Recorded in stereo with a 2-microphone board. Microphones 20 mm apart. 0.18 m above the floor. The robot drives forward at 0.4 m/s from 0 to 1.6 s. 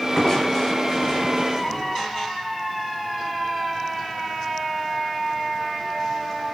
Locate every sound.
0.1 s crushing: 35° left (ahead or behind), 1.2 m; by 2.1 s 30° left (ahead or behind), 1.4 m